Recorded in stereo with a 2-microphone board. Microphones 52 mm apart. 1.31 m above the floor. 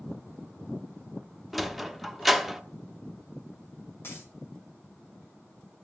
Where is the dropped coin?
50° left (ahead or behind), 4 m.